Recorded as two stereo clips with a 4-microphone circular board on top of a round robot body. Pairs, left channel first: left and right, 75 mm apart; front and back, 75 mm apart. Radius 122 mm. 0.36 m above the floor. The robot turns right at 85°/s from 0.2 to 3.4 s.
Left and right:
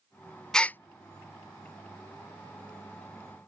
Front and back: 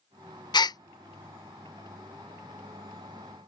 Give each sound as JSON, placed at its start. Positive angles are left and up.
{"t": 0.5, "sound": "a gasp", "azimuth_deg": 5}